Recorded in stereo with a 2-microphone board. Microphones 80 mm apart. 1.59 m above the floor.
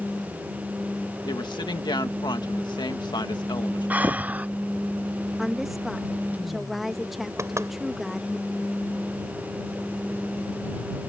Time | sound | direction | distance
1.2 | a woman speaking | 75° left (ahead or behind) | ?
3.9 | breathing | 20° right (ahead or behind) | ?
5.4 | a woman speaking | centre (ahead or behind) | ?
7.4 | knocking | 40° right (ahead or behind) | ?